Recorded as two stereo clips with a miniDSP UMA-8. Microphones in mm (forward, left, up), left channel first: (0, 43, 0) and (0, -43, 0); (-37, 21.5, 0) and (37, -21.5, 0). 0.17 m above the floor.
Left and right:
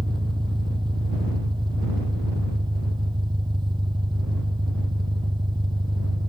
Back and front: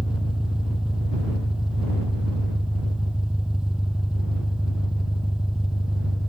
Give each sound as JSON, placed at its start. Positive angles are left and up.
{"t": 0.0, "sound": "an engine running", "azimuth_deg": -110}